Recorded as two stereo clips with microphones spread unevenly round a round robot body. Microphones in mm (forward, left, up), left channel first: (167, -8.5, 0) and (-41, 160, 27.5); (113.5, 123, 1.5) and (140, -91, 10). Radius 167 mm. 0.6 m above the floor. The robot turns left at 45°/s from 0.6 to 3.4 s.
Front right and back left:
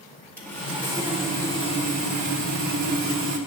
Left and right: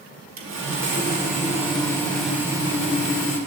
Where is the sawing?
120° right, 1.6 m; by 3.4 s 115° left, 1.6 m.